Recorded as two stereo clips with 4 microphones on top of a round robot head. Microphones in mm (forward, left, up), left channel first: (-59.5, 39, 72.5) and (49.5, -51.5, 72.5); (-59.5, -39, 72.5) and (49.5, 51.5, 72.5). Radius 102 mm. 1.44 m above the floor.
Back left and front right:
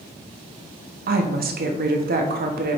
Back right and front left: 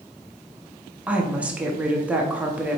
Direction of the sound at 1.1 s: 40° right.